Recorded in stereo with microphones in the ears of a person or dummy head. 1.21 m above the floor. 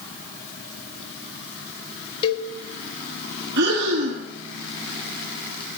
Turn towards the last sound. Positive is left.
turn(degrees=-60)  # may be behind; listen again after turning